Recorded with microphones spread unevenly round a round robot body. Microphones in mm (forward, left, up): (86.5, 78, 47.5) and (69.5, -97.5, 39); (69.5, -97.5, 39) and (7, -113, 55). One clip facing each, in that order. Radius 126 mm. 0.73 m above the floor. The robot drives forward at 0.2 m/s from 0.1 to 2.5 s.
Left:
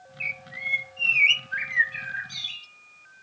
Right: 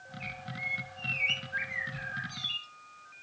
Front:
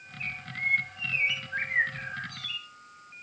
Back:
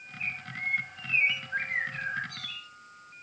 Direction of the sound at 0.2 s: 115° left.